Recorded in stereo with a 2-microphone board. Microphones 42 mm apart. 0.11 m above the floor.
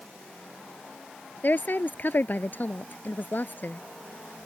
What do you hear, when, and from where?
1.4 s a woman speaking: 50° left (ahead or behind)